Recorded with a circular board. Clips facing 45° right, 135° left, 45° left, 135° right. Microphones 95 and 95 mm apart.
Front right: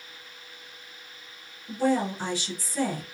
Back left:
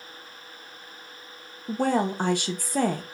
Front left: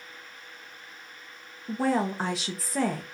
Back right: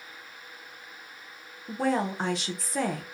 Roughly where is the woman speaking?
Behind left.